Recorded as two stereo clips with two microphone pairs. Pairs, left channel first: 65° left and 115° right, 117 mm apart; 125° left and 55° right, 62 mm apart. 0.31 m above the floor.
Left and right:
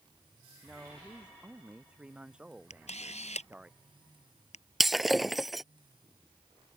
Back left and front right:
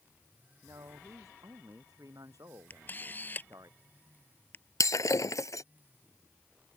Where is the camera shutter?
70° left.